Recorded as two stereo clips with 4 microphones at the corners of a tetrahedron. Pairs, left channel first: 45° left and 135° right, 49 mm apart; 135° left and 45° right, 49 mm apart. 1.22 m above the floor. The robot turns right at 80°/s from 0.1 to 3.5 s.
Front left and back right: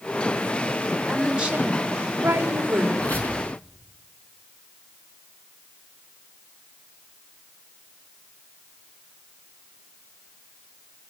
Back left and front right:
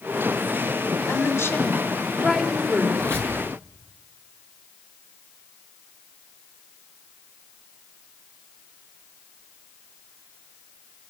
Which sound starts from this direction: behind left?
A woman speaking, at 1.1 s.